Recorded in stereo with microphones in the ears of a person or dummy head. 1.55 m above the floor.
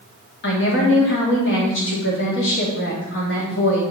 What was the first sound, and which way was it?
A woman speaking, 70° left (ahead or behind).